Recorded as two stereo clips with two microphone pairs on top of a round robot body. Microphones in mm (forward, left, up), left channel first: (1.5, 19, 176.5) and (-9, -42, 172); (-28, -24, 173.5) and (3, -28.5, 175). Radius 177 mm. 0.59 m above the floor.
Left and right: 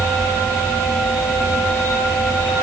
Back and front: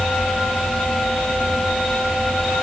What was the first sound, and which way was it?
Only background noise.